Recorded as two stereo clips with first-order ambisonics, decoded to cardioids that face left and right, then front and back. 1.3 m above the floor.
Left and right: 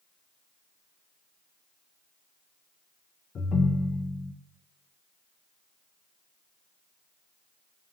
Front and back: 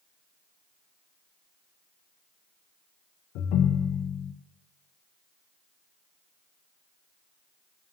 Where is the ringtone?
25° left, 0.6 m.